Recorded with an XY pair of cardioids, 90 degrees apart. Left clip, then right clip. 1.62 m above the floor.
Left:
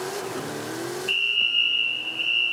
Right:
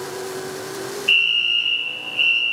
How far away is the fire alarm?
About 2.0 m.